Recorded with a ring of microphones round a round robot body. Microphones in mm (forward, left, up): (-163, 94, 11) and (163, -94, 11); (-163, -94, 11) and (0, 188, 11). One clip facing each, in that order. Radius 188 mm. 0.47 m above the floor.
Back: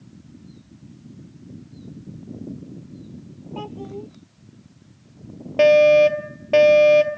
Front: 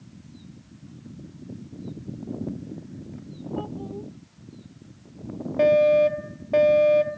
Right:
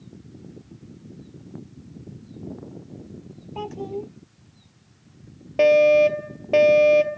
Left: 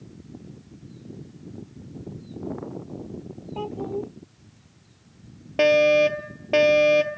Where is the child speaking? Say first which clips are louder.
Back 1 dB, left 1 dB; 175° right.